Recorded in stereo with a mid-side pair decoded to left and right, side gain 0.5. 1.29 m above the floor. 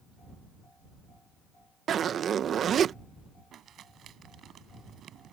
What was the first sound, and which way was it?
A zipper, 50° right.